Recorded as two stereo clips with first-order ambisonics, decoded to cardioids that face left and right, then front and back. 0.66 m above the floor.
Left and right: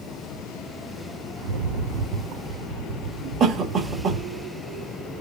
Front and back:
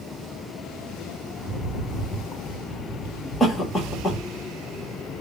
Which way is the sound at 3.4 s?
70° right.